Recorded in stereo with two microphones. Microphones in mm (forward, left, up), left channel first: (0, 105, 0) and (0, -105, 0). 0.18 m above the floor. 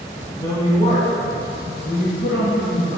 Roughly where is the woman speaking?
Centre.